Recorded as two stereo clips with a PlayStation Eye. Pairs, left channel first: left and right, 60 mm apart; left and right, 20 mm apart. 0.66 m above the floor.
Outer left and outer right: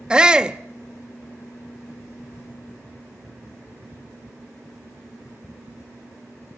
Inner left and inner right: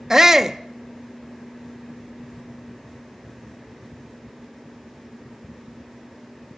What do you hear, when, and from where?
0.1 s a shout: 20° right (ahead or behind), 0.7 m